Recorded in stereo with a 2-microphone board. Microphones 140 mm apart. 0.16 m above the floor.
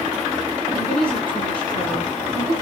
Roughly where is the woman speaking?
Centre.